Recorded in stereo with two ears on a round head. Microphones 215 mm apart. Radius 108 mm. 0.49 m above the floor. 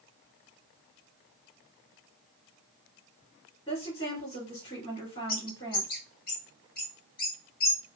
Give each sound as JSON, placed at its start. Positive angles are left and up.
{"t": 3.7, "sound": "a woman speaking", "side_deg": 25, "distance_m": 1.9}
{"t": 5.3, "sound": "a bird", "side_deg": 40, "distance_m": 1.3}